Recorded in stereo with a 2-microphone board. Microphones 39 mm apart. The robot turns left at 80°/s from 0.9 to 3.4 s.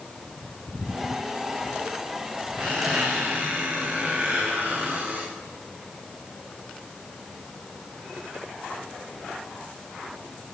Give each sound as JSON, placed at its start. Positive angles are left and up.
{"t": 2.6, "sound": "a squeak", "azimuth_deg": -60, "distance_m": 4.0}